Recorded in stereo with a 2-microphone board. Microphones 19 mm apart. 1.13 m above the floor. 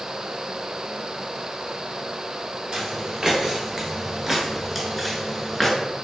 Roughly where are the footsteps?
Right.